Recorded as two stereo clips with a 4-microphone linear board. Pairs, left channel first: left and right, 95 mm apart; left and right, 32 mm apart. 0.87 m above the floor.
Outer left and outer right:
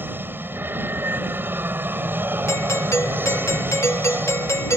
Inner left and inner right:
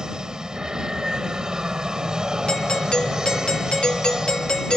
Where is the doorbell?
30° left (ahead or behind).